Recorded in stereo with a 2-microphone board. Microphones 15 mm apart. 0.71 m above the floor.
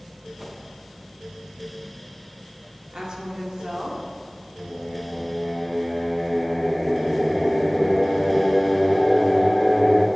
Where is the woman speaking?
50° right (ahead or behind), 2 m.